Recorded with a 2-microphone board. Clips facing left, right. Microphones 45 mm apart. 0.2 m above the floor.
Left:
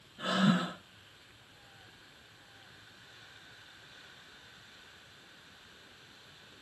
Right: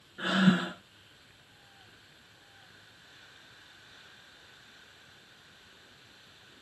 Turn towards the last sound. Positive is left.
turn(degrees=-60)  # may be behind; listen again after turning